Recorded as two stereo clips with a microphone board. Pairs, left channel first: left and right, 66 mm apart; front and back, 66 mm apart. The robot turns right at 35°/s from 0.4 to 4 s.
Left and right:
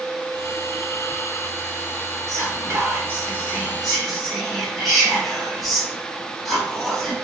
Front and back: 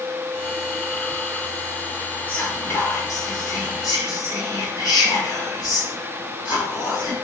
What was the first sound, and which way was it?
Whispering, 60° right.